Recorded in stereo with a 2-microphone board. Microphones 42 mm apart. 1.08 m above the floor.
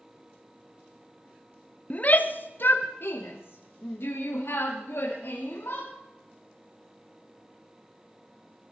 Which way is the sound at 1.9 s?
35° left (ahead or behind).